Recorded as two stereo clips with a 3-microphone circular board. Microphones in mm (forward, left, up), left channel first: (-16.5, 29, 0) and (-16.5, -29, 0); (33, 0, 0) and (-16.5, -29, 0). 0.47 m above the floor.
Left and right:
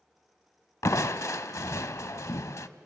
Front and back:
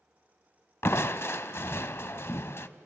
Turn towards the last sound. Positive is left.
turn(degrees=70)